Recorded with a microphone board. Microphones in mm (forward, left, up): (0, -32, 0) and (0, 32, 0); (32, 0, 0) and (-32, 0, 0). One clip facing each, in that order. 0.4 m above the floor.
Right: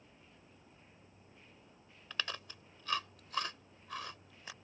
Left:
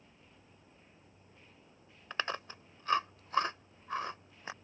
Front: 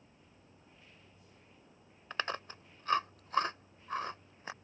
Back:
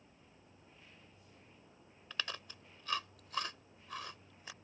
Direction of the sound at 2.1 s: 40° left.